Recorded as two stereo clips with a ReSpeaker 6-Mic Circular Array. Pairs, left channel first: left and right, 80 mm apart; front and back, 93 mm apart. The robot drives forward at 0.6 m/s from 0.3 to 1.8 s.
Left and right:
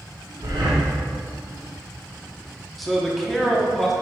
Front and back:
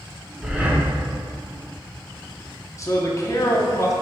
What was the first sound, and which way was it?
Breathing, 100° right.